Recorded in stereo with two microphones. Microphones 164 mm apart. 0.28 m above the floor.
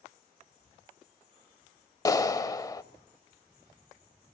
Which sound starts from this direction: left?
A clap, at 2.0 s.